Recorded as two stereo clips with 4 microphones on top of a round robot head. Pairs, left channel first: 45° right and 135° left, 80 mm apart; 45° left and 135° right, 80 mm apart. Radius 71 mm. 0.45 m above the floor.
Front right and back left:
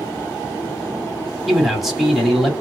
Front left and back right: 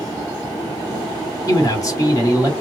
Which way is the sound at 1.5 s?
50° left.